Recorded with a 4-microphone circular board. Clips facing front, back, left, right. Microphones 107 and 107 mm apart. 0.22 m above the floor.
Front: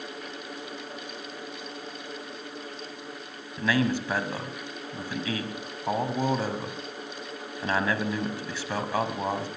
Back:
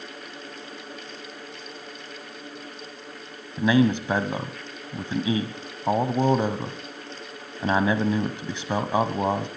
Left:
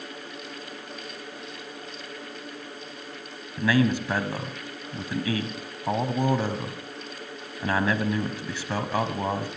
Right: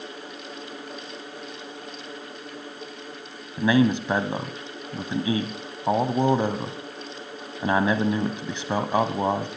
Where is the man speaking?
135° right, 1.3 m.